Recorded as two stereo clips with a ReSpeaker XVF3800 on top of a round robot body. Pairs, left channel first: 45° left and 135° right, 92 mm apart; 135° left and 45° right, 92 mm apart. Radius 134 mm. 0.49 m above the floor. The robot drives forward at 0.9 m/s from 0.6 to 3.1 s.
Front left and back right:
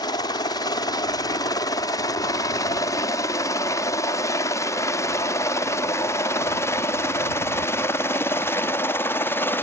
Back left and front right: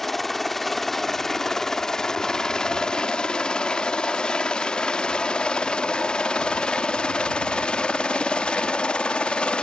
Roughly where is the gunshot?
No gunshot in this recording.